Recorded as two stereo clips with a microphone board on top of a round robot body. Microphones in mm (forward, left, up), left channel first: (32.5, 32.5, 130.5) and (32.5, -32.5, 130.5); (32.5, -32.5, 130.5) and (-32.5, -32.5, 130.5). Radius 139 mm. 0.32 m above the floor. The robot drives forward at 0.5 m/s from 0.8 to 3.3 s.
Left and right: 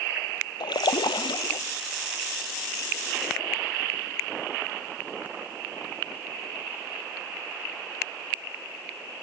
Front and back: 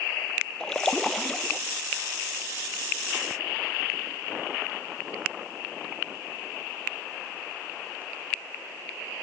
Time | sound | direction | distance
0.6 | a splash | 80° left | ?